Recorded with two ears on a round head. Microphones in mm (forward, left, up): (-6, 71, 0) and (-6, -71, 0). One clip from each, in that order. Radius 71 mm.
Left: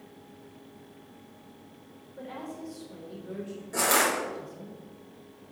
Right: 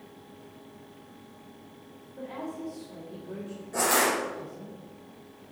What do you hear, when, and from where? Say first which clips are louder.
2.2 s a woman speaking: right 2 dB; 55° left (ahead or behind), 3 m
3.7 s crushing: even; 30° left (ahead or behind), 3.5 m